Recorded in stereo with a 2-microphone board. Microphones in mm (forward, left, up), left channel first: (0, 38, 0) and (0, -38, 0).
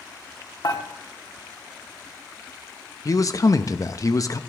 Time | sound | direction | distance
0.6 | dishes clattering | 65° left (ahead or behind) | 1.3 m
3.0 | a man speaking | 50° left (ahead or behind) | 0.7 m